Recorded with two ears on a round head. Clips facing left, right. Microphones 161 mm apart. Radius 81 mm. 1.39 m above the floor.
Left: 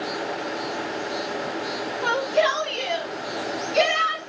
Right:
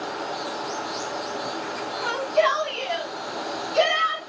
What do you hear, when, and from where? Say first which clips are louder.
2.0 s a shout: even; 40° left (ahead or behind), 4 m; by 4.2 s 30° left (ahead or behind), 3 m